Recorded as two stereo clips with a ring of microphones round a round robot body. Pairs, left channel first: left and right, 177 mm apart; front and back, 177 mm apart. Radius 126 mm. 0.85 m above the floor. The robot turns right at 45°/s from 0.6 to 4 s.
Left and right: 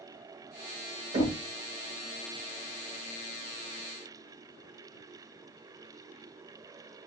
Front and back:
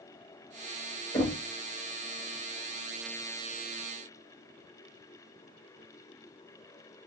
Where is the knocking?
55° right, 1.3 m; by 1.4 s 45° right, 1.3 m.